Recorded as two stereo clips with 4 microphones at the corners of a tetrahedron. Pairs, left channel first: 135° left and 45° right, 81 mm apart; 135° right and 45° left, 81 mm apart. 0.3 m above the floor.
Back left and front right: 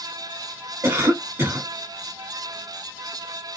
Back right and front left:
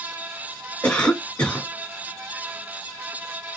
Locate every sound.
0.8 s a cough: 65° right, 1.2 m